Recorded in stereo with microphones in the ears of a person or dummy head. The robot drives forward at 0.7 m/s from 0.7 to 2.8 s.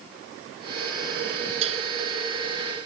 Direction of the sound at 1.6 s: 35° right (ahead or behind).